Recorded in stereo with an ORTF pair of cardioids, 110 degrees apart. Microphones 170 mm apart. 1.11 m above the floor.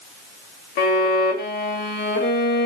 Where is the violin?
65° left, 2 m.